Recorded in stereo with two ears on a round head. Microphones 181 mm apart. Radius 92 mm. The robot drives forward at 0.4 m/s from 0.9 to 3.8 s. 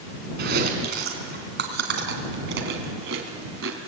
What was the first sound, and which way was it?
Chewing, 50° right (ahead or behind).